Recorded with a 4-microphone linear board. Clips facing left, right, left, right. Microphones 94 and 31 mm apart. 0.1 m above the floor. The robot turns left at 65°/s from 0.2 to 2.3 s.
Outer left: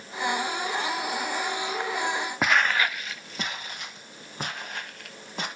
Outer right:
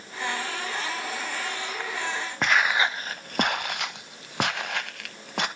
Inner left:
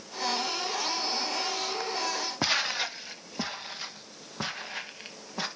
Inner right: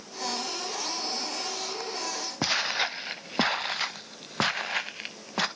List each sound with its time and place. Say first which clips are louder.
2.4 s footsteps: outer right 1 dB, inner right 2 dB; 10° left (ahead or behind), 0.6 m; by 5.5 s 80° right, 2 m